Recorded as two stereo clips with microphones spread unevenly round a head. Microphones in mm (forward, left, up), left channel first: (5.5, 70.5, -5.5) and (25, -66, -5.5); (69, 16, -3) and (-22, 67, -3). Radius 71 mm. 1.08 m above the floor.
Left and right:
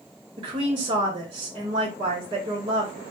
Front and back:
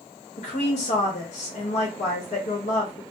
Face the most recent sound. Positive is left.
turn(degrees=-25)